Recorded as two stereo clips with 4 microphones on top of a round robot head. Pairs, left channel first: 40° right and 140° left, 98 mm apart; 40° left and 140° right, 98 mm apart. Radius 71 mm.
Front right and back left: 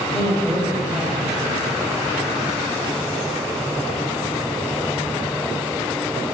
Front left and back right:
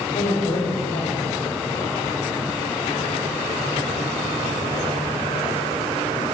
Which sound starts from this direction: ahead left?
A woman speaking, at 0.1 s.